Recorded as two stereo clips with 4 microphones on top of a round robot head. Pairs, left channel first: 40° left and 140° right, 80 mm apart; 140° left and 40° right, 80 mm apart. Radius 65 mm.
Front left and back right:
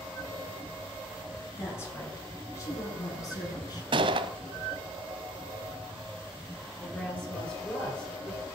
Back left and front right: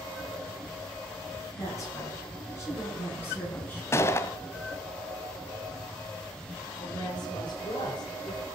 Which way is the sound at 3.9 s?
160° right.